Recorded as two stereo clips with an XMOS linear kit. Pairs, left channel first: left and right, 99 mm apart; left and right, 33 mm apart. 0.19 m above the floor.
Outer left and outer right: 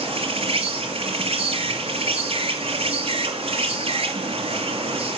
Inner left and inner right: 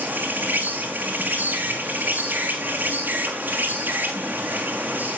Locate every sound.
0.0 s an insect: 85° right, 4 m